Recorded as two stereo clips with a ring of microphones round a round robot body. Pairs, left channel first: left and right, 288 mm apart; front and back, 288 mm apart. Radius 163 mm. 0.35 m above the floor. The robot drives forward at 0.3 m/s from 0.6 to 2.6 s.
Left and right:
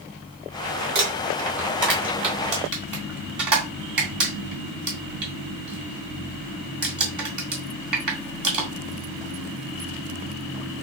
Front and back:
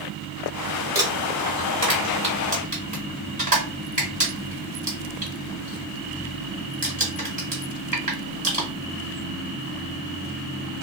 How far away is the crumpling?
About 2 m.